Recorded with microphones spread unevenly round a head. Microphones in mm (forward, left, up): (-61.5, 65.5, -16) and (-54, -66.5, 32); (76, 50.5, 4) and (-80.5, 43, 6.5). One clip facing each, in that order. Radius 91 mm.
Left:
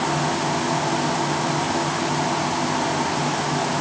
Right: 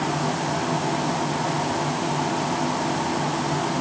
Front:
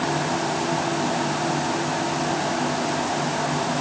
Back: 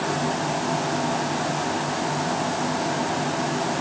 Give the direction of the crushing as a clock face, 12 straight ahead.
No crushing in this recording.